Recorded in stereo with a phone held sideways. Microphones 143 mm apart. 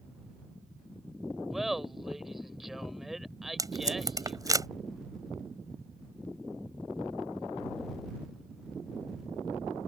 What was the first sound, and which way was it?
Laughter, centre (ahead or behind).